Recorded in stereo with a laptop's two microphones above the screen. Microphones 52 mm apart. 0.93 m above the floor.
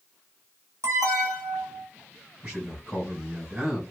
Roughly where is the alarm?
Right.